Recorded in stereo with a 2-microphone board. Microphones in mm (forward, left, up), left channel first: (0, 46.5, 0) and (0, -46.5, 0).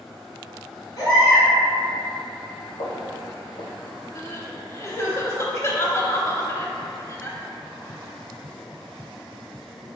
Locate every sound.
1.0 s a baby crying: 45° left (ahead or behind), 1.4 m
2.8 s footsteps: 55° left (ahead or behind), 1.2 m
4.2 s crying: 30° left (ahead or behind), 0.5 m